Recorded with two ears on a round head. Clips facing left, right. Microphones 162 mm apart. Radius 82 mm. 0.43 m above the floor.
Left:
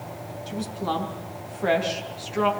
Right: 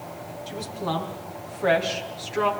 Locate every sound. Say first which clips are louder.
0.5 s a woman speaking: left 1 dB; centre (ahead or behind), 5 m